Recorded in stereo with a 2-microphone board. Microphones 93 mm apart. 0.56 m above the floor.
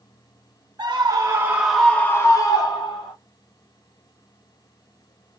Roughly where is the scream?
Right.